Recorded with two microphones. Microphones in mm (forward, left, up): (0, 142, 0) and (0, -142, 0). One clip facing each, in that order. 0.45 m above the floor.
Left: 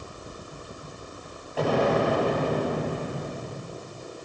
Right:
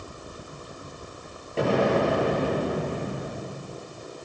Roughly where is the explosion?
Right.